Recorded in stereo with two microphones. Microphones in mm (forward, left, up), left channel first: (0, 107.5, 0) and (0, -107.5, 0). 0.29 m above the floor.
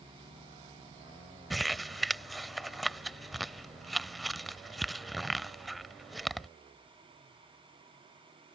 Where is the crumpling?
Centre (ahead or behind).